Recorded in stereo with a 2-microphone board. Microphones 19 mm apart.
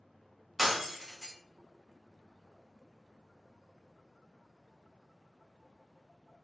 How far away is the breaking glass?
About 0.7 m.